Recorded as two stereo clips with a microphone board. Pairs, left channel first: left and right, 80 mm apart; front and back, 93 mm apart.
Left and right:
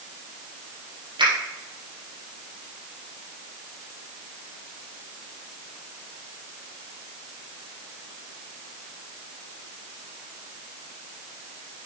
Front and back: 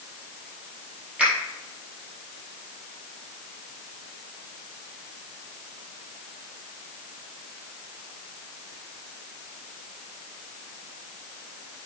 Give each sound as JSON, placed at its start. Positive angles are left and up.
{"t": 1.2, "sound": "a finger snap", "azimuth_deg": -100, "distance_m": 4.5}